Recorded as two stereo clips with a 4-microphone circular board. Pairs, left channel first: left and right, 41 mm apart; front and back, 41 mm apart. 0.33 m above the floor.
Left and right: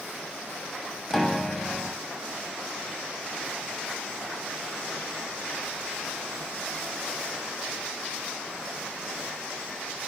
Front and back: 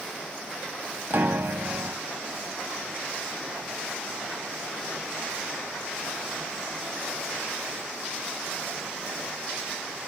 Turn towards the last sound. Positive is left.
turn(degrees=180)